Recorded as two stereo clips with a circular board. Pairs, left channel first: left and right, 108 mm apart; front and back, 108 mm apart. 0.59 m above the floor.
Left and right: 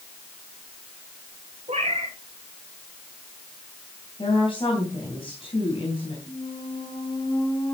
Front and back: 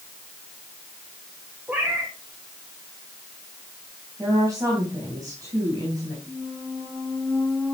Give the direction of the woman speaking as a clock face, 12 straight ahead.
8 o'clock.